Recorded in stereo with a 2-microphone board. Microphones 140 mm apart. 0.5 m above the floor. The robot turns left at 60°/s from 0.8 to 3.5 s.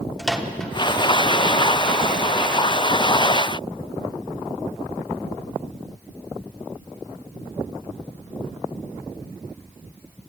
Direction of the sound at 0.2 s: 5° left (ahead or behind).